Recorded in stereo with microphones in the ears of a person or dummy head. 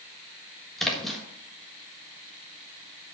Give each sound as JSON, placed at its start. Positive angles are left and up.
{"t": 0.8, "sound": "a splash", "side_deg": 5, "distance_m": 1.5}